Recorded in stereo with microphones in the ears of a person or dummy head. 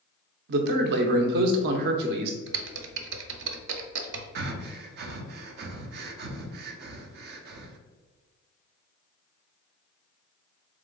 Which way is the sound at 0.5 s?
50° right (ahead or behind).